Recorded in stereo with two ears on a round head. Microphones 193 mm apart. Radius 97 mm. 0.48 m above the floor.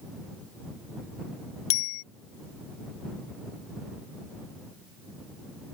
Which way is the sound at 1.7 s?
65° left (ahead or behind).